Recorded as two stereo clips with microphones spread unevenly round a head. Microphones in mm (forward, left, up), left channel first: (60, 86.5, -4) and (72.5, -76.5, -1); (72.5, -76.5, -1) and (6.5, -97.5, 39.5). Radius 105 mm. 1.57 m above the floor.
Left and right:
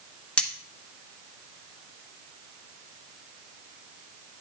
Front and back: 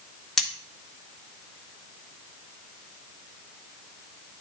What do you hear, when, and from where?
0.4 s cutlery clinking: 175° left, 0.7 m